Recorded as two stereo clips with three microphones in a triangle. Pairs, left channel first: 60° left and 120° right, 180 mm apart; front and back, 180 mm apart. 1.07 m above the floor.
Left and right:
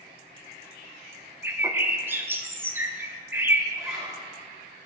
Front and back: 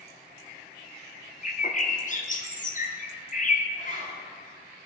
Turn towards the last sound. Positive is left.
turn(degrees=-45)